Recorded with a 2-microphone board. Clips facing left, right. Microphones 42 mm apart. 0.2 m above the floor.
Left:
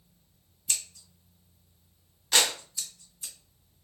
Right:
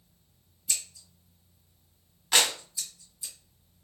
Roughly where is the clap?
Right.